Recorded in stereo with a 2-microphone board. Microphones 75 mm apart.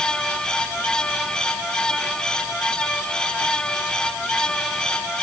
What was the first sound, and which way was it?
Only background noise.